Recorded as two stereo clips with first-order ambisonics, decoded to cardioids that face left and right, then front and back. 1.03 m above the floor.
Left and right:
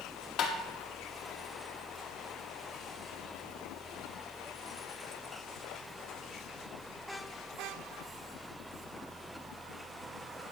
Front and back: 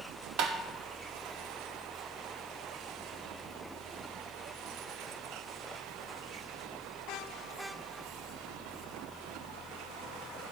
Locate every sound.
0.4 s tapping: 140° left, 1.2 m